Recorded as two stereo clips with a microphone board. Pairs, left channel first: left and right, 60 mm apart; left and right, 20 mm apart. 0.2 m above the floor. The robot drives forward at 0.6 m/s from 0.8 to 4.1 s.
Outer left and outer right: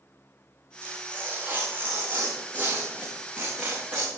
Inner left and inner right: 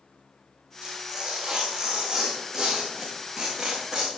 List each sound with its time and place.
0.8 s tearing paper: 35° right (ahead or behind), 4 m; by 4.1 s 25° right (ahead or behind), 6 m